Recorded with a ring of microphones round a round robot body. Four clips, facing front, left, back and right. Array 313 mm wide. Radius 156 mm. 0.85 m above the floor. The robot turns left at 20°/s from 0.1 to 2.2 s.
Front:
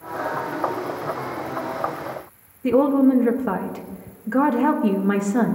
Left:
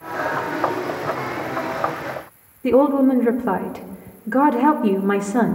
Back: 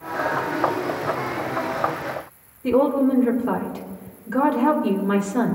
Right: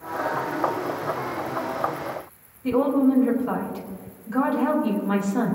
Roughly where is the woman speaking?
Left.